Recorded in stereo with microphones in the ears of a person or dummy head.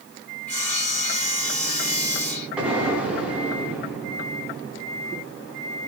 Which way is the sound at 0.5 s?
5° left (ahead or behind).